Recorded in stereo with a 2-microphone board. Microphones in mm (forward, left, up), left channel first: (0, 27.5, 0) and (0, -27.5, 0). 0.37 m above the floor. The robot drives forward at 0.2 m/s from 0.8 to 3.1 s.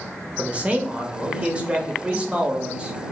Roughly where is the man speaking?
Right.